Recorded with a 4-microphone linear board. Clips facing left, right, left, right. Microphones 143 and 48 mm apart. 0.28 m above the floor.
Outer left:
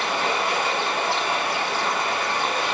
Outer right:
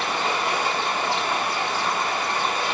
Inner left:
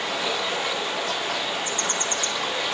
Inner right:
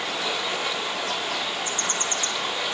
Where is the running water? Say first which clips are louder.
Outer left 1 dB, inner left 1 dB; 50° left (ahead or behind), 8 m.